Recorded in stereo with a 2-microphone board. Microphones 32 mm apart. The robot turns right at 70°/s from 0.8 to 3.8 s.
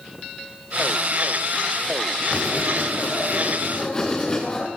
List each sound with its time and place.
2.3 s writing: 50° left, 9.5 m; by 4.7 s 155° left, 9.5 m